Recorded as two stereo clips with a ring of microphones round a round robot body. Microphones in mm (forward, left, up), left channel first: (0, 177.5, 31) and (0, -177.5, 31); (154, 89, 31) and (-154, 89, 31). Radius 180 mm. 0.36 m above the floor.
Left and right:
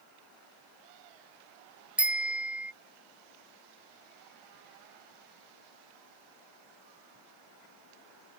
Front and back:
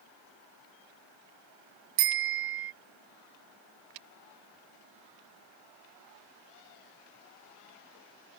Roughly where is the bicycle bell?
Behind.